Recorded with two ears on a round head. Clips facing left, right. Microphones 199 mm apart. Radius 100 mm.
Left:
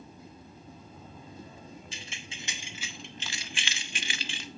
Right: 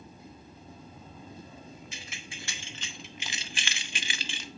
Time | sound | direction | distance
1.9 | keys jangling | 25° left (ahead or behind) | 1.2 m